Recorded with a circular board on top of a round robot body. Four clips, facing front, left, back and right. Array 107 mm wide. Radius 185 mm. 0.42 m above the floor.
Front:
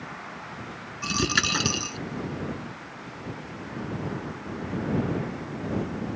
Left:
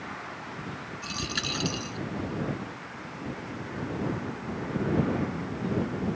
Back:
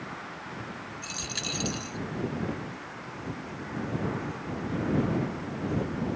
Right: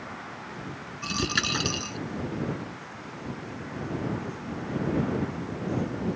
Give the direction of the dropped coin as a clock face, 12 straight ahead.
1 o'clock.